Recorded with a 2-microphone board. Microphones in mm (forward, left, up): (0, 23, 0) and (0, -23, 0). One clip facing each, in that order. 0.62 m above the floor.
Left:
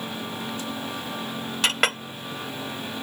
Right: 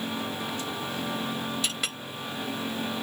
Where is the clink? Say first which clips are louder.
Left 9 dB; 75° left (ahead or behind).